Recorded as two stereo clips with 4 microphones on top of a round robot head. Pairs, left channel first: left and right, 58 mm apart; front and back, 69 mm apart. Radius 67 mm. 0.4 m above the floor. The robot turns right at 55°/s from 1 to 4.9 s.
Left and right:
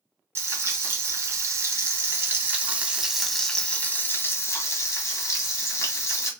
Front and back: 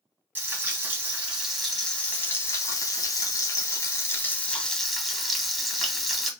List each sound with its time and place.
0.3 s frying: 120° right, 1.1 m; by 6.3 s 95° left, 1.1 m